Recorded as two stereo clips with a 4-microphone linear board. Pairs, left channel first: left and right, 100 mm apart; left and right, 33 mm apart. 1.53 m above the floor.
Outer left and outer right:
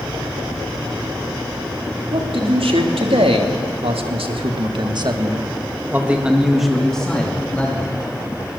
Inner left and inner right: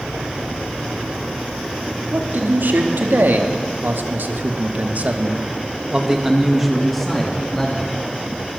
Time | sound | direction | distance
2.1 | a man speaking | 75° right (ahead or behind) | 3.5 m